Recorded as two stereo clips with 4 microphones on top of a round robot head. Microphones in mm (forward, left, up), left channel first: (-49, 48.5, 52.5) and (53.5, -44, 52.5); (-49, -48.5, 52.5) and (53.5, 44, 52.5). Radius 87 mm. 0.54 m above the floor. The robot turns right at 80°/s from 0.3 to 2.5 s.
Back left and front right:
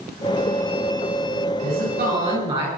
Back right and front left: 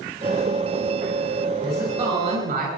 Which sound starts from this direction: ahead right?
A woman speaking, at 1.6 s.